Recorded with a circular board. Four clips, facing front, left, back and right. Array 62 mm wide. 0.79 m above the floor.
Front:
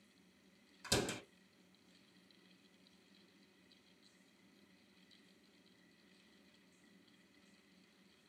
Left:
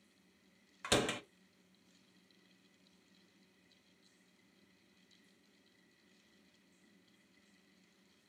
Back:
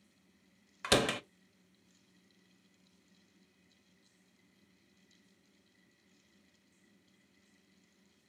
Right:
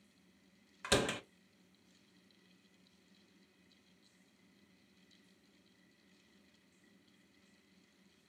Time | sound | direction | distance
0.8 | a door slam | straight behind | 0.8 m